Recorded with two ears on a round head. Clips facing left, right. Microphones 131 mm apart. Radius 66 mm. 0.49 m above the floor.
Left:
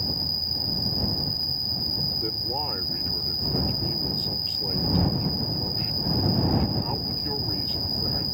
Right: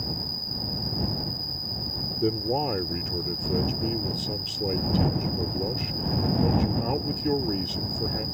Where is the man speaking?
50° right (ahead or behind).